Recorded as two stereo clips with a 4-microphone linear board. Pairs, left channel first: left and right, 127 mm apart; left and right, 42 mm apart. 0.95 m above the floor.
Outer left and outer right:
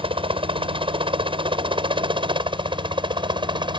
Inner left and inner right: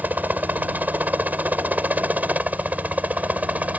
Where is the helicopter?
45° right (ahead or behind); by 3.8 s 40° right (ahead or behind).